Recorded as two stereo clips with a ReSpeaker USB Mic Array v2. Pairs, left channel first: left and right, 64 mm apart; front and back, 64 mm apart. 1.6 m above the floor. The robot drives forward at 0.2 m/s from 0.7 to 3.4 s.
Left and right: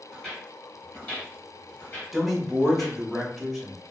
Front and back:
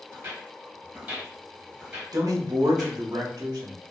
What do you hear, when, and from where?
0.1 s footsteps: straight behind, 1.7 m; by 3.0 s 100° left, 2 m
2.1 s a man speaking: 175° right, 0.8 m